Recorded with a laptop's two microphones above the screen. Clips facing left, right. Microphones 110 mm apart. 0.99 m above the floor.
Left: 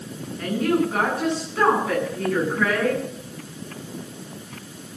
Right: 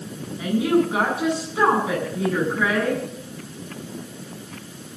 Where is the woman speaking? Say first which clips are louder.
Right 2 dB; 10° right (ahead or behind), 8.5 m.